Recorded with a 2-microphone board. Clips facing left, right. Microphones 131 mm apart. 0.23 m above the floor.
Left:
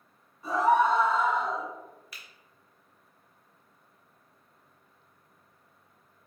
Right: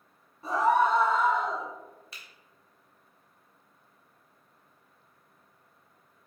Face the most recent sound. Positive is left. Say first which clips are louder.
# even
turn(degrees=-30)  # may be behind; listen again after turning